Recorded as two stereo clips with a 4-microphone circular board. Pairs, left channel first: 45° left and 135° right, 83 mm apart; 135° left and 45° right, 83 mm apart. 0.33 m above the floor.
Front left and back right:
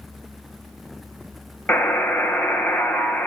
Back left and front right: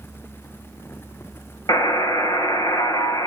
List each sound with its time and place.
1.7 s a buzzer: 110° left, 1.5 m